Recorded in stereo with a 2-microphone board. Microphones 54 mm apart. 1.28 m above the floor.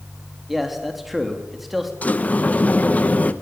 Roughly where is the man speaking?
Centre.